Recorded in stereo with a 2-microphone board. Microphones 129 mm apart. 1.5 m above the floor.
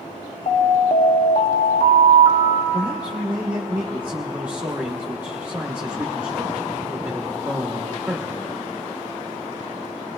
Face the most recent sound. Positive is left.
turn(degrees=-15)  # may be behind; listen again after turning